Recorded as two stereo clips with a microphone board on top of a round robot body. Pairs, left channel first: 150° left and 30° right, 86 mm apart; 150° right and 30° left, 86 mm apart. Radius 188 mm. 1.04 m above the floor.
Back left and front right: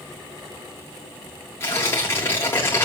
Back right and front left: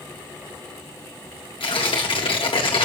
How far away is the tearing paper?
About 1.2 m.